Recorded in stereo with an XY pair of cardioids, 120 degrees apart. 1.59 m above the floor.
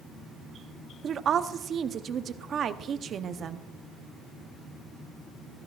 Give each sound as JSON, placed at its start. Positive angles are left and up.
{"t": 1.0, "sound": "a woman speaking", "azimuth_deg": -50, "distance_m": 0.7}